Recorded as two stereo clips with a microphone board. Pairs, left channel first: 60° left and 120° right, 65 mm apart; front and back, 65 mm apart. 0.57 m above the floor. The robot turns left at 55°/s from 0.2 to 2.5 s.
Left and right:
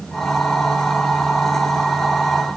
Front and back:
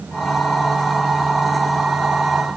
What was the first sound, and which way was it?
Only background noise.